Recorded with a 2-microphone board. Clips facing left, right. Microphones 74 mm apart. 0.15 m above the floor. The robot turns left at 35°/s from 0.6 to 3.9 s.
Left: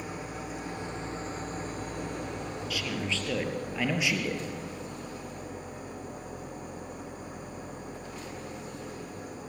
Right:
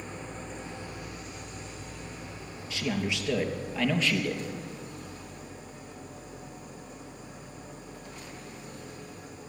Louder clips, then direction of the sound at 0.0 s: Left 2 dB; 170° left.